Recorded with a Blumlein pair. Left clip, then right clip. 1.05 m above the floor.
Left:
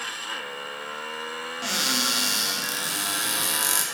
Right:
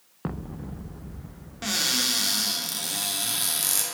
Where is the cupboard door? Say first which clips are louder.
Even; straight ahead, 1.4 m.